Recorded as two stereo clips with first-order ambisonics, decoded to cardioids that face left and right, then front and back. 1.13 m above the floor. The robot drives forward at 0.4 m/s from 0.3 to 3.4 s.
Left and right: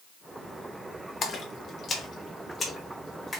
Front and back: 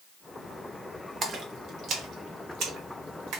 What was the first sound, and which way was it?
A splash, 130° left.